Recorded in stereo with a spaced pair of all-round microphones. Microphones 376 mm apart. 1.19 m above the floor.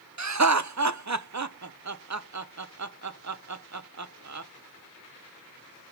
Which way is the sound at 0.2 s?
50° right (ahead or behind).